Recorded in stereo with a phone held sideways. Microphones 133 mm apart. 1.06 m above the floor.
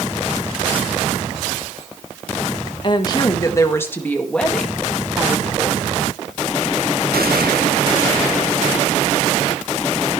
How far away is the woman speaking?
About 1.7 m.